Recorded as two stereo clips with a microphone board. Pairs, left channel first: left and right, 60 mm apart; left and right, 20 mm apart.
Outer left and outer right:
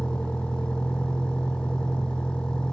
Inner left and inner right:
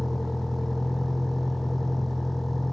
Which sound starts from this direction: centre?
A vehicle, at 0.0 s.